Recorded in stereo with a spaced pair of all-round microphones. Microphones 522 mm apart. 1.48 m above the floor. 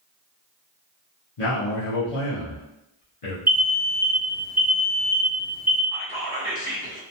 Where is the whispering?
45° left (ahead or behind), 0.8 m.